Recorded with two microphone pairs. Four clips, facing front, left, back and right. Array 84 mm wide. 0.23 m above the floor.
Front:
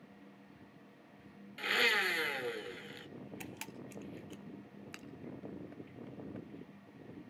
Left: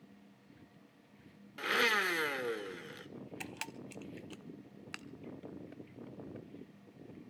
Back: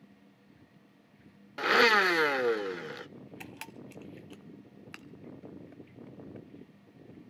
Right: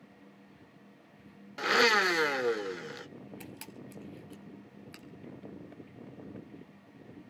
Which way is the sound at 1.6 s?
155° right.